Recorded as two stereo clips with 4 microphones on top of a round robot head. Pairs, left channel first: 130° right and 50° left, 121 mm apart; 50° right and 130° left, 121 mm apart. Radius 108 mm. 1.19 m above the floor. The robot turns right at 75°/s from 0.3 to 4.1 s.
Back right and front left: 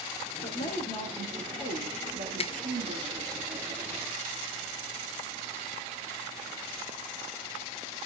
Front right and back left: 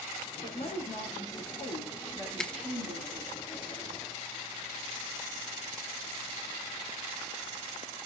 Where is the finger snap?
135° right, 0.6 m; by 2.5 s 125° right, 0.6 m.